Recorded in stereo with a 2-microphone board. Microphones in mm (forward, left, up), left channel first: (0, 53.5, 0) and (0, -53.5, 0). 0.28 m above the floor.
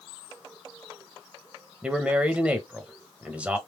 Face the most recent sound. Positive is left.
turn(degrees=-10)  # may be behind; listen again after turning